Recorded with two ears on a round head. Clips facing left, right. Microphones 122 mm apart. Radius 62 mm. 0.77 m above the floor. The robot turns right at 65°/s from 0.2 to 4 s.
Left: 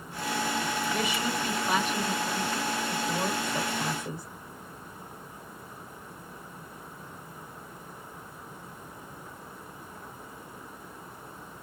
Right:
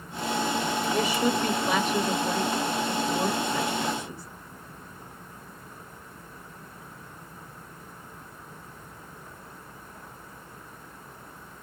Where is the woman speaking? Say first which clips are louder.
Right 5 dB; 25° right (ahead or behind), 1.0 m; by 4.2 s 40° left (ahead or behind), 1.0 m.